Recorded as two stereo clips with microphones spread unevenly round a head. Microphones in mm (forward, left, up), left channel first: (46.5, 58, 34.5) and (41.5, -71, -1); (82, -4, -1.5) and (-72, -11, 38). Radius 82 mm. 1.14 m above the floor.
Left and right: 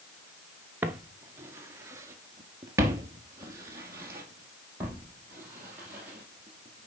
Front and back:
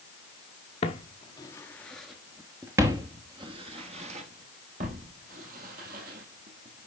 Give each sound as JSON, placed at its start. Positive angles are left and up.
{"t": 0.8, "sound": "footsteps", "azimuth_deg": -5, "distance_m": 1.1}